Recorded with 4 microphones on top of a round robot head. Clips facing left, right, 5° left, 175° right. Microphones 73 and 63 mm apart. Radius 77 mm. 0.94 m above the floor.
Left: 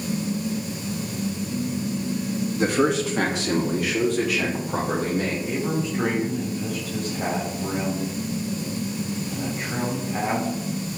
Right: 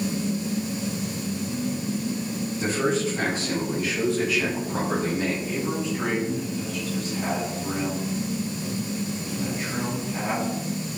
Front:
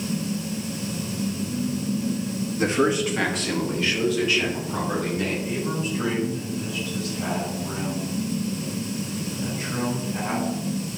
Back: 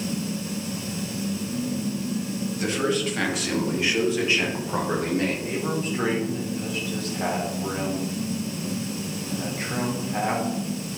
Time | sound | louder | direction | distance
2.6 | a man speaking | left 3 dB, front 4 dB | 60° left | 1.6 m
5.4 | a man speaking | left 2 dB, even | 140° left | 3.5 m